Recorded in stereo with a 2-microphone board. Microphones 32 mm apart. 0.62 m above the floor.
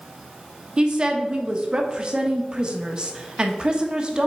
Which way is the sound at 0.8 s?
30° right (ahead or behind).